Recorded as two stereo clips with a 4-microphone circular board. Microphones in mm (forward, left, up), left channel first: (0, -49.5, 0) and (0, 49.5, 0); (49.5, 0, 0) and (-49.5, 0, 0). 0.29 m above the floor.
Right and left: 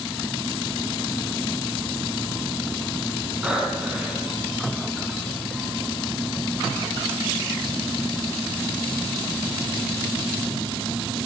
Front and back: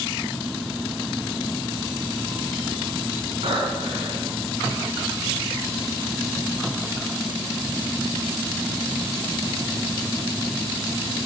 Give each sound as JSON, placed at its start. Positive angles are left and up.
{"t": 3.4, "sound": "breathing", "azimuth_deg": 170, "distance_m": 3.0}